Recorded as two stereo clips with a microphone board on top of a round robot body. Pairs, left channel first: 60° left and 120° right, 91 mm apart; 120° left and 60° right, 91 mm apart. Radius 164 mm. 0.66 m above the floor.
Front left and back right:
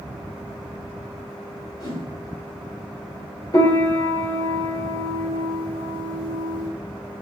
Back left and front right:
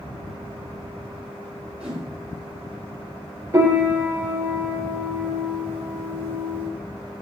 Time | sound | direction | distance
1.8 | a whoosh | 15° left | 5 m
3.5 | a piano | 5° left | 2.5 m